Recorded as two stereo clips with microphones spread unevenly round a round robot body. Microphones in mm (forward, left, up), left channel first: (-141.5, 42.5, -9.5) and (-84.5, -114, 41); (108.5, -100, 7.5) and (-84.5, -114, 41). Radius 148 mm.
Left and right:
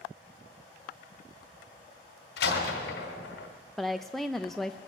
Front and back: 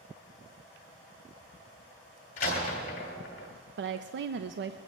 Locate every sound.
2.4 s a door slam: 70° left, 1.8 m
3.8 s a woman speaking: 175° right, 0.6 m